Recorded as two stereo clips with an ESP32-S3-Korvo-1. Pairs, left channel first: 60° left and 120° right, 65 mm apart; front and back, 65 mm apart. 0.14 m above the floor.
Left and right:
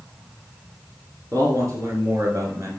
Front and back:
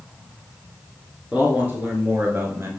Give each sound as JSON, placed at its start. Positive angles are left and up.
{"t": 1.3, "sound": "a man speaking", "azimuth_deg": -110, "distance_m": 2.0}